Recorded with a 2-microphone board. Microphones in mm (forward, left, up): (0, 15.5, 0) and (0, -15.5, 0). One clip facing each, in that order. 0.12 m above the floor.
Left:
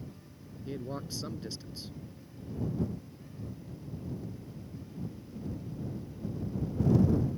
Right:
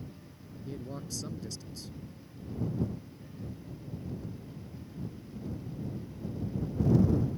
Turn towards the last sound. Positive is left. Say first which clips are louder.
# left 3 dB
turn(degrees=25)  # may be behind; listen again after turning